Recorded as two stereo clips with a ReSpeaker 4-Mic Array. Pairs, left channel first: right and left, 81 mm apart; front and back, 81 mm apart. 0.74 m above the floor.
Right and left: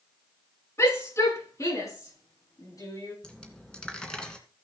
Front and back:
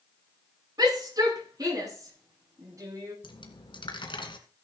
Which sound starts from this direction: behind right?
A shout, at 0.8 s.